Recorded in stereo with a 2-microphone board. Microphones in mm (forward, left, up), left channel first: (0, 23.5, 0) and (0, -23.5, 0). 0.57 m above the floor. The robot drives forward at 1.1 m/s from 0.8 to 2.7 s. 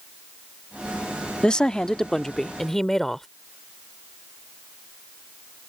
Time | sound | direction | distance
1.4 | a woman speaking | 20° left (ahead or behind) | ?